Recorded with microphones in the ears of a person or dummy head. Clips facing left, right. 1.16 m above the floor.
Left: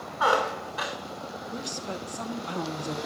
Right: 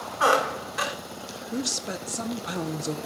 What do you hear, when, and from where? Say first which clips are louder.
0.2 s a squeak: right 2 dB; 35° right (ahead or behind), 1.1 m
1.5 s a woman speaking: right 6 dB; 15° right (ahead or behind), 0.7 m